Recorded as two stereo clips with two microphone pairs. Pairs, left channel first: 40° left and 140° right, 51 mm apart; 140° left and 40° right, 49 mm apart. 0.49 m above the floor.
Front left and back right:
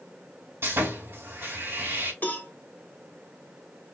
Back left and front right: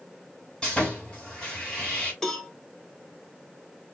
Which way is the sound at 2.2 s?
60° left.